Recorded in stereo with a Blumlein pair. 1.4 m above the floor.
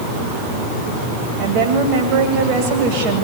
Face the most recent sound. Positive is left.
turn(degrees=-35)